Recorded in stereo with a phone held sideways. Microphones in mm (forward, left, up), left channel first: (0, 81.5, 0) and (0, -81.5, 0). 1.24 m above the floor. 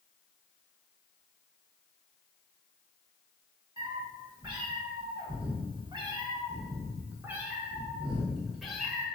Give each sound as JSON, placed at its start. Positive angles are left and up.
{"t": 3.8, "sound": "a cat meowing", "side_deg": -25, "distance_m": 1.5}